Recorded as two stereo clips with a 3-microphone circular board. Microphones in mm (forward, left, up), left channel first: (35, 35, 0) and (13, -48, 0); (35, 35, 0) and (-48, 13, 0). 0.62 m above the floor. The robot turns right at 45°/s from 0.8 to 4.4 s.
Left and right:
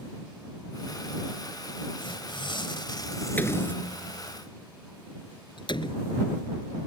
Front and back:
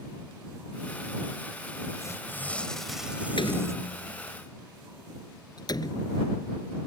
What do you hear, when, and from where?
2.0 s tearing paper: 65° left; by 3.8 s 145° left
3.4 s a door slam: 5° left; by 6.9 s 55° left